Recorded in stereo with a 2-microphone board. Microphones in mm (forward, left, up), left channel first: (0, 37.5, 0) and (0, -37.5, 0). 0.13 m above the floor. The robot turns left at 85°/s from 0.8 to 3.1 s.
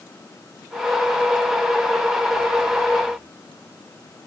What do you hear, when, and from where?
Only background noise.